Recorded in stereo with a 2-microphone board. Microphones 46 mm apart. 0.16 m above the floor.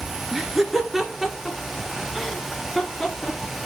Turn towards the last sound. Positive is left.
turn(degrees=5)  # may be behind; listen again after turning